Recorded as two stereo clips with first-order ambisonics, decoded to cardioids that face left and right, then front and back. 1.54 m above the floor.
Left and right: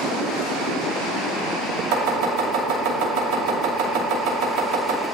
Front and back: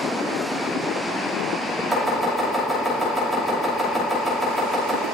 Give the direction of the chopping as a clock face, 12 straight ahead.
3 o'clock.